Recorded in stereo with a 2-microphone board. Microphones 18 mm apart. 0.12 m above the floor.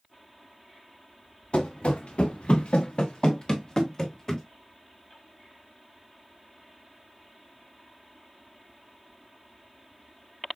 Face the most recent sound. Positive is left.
turn(degrees=25)  # may be behind; listen again after turning